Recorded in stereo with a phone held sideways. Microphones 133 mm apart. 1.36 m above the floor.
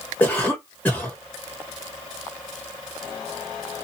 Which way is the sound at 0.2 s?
10° left (ahead or behind).